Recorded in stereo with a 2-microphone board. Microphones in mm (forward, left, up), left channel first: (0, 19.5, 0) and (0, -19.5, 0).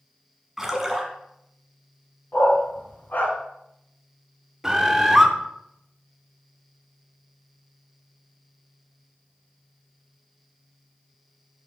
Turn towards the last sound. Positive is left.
turn(degrees=-10)  # may be behind; listen again after turning